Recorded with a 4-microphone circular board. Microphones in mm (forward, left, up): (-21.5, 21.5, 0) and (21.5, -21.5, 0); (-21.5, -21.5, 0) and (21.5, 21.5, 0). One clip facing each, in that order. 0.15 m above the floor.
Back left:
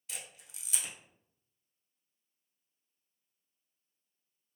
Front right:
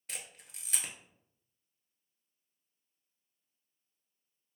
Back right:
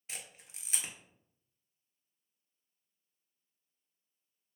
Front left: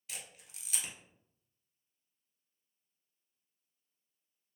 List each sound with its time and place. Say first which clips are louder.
0.1 s a camera shutter: front right 1 dB, back right 1 dB; 80° right, 0.9 m